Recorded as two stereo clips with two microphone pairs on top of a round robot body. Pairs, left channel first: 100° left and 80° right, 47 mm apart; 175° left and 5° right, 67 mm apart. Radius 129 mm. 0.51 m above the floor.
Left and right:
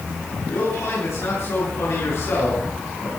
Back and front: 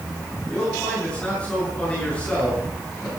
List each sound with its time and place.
0.5 s a man speaking: 105° left, 8 m